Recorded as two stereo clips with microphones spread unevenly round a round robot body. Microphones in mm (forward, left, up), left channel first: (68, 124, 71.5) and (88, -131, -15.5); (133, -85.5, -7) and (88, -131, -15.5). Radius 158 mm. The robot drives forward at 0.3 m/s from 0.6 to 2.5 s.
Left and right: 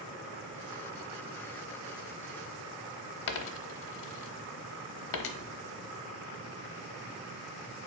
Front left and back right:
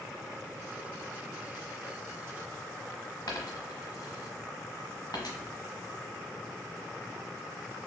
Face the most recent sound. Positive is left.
turn(degrees=105)